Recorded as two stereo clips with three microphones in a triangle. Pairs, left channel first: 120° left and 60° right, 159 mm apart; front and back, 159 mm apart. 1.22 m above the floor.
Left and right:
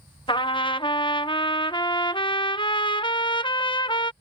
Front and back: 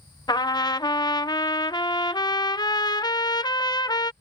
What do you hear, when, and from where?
0.3 s a trumpet: 65° left